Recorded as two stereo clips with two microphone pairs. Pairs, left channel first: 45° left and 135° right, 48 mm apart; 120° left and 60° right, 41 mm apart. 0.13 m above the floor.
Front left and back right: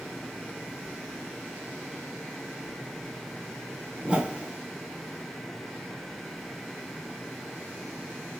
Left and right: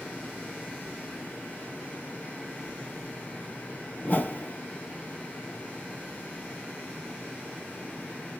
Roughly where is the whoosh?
Behind.